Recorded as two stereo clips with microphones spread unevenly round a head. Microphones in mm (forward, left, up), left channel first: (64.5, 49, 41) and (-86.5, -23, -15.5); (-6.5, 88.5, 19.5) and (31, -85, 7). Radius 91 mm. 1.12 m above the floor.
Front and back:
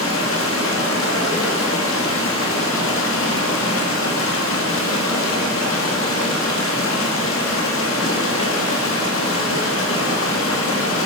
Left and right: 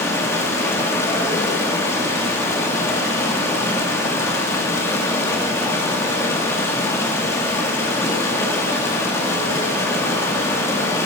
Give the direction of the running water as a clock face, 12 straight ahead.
11 o'clock.